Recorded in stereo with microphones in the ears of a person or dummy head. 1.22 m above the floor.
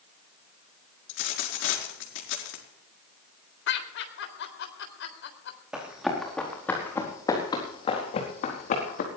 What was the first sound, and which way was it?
A dropped coin, 75° left (ahead or behind).